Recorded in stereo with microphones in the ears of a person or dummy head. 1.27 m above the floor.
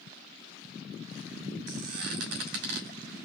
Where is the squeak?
65° right (ahead or behind), 1.7 m.